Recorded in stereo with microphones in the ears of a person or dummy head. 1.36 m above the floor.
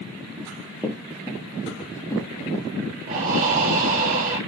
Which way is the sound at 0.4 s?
5° right (ahead or behind).